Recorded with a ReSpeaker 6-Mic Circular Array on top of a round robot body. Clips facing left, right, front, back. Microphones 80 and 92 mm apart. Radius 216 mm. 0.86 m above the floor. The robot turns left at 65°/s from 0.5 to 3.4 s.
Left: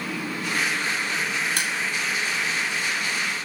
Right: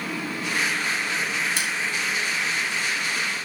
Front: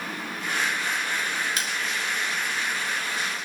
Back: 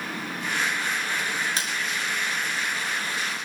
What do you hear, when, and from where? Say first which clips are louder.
1.6 s crushing: even, even; 125° left, 2 m; by 1.8 s 110° left, 2 m